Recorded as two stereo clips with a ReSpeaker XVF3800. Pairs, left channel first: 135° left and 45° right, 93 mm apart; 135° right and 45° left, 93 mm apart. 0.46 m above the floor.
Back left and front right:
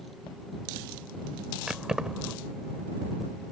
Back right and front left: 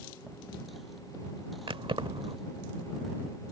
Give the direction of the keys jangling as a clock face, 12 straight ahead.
11 o'clock.